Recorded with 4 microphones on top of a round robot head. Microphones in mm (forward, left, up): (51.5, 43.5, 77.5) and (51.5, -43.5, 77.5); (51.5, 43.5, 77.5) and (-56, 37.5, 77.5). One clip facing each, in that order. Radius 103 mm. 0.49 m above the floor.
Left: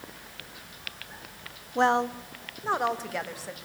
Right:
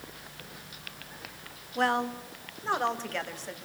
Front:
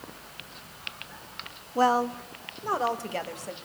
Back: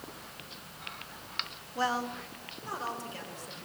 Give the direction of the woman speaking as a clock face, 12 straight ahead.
11 o'clock.